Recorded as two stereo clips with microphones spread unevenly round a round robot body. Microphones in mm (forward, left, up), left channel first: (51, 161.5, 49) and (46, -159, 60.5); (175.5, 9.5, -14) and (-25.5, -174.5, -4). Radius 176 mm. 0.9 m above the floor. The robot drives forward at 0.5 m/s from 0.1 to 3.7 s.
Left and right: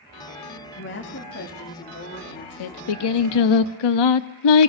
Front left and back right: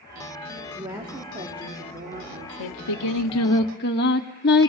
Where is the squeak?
No squeak in this recording.